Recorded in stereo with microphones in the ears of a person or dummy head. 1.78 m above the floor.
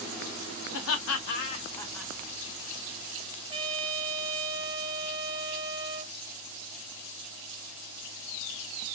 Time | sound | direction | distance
0.7 | laughter | 80° left | 0.9 m
3.5 | a trumpet | 25° right (ahead or behind) | 0.8 m